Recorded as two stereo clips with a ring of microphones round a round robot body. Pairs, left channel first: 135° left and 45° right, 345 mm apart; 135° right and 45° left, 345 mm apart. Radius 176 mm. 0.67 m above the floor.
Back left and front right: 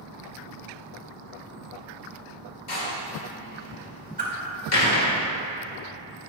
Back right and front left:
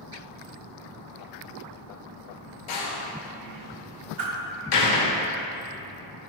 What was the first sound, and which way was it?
A door slam, straight behind.